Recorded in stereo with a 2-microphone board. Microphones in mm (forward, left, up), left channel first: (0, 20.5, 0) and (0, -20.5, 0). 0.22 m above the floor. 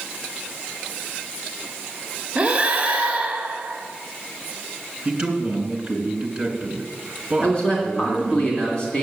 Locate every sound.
2.4 s breathing: 30° right (ahead or behind), 1.3 m
5.0 s a man speaking: 25° right (ahead or behind), 2.5 m
7.4 s a man speaking: 20° left (ahead or behind), 2.5 m